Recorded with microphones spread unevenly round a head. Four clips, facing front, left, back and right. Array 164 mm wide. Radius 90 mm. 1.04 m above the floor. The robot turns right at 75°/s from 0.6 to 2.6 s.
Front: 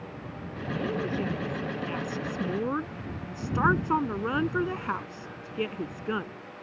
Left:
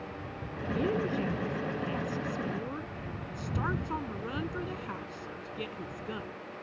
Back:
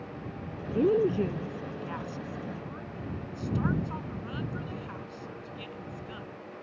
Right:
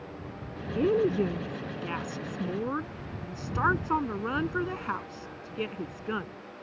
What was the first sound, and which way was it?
A woman speaking, 160° right.